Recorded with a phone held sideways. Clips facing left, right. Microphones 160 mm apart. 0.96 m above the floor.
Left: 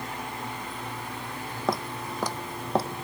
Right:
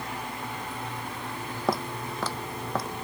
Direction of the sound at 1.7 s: Centre (ahead or behind).